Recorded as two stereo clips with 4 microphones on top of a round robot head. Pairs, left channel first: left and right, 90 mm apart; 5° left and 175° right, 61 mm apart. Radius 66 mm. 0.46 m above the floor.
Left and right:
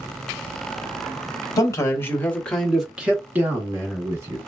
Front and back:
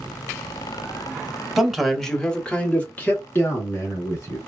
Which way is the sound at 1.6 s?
100° left.